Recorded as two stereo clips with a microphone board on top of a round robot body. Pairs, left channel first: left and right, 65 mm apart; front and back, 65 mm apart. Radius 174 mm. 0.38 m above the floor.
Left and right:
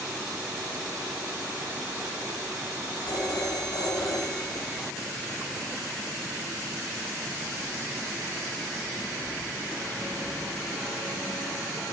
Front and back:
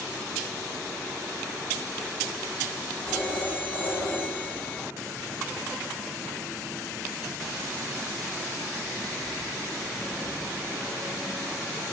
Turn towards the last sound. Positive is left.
turn(degrees=70)